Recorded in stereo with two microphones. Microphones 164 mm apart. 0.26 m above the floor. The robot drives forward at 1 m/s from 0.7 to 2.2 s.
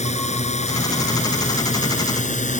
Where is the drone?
45° left (ahead or behind); by 2.6 s 50° left (ahead or behind).